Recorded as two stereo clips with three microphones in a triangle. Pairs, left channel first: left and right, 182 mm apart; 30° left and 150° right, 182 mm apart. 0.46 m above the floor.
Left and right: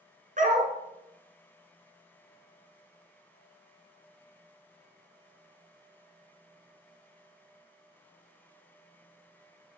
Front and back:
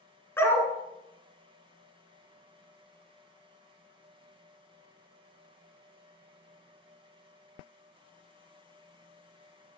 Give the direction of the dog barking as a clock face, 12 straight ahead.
2 o'clock.